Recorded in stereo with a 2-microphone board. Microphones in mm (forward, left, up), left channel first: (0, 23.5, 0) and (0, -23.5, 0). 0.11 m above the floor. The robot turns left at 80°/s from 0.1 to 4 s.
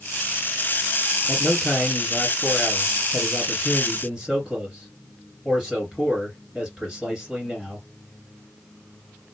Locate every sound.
1.3 s a man speaking: 150° right, 2.0 m; by 7.8 s 5° right, 2.0 m